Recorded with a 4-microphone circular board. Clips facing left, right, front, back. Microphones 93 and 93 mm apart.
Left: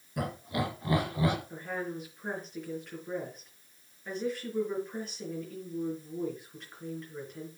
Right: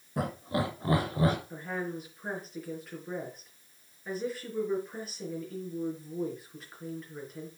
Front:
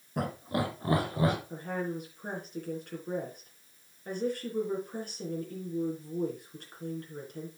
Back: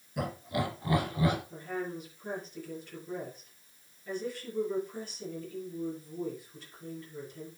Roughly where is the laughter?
Ahead right.